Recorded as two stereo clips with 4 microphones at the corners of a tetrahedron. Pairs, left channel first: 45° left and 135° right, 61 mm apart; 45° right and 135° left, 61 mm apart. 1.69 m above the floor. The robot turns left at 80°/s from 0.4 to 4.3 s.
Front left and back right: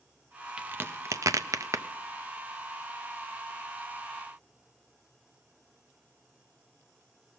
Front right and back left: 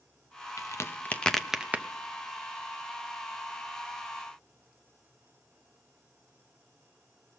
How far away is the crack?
About 0.6 m.